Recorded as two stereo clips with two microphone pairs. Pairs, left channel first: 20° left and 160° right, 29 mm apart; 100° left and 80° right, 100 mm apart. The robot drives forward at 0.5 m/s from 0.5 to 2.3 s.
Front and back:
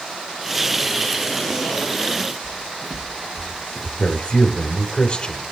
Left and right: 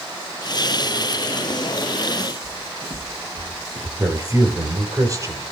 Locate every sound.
2.4 s footsteps: 60° right, 4 m; by 3.9 s 70° right, 2.0 m
4.0 s a man speaking: 30° right, 4 m